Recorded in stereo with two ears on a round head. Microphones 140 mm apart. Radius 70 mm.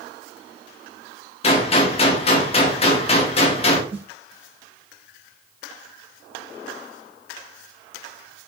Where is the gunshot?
40° left (ahead or behind), 1.0 m.